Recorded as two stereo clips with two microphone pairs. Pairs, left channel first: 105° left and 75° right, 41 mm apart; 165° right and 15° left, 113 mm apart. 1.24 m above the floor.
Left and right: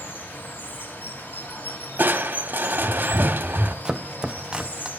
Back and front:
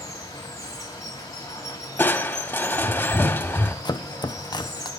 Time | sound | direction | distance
0.0 | running water | 135° left | 3.5 m
2.0 | crushing | 100° right | 1.1 m
3.9 | chopping | 135° right | 0.7 m